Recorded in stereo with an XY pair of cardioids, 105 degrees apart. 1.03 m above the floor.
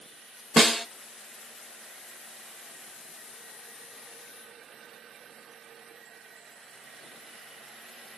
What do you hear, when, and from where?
0.6 s a snare drum: straight ahead, 0.6 m